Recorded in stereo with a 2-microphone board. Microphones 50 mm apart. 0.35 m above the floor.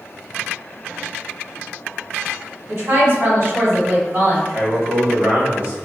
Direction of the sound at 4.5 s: 35° right (ahead or behind).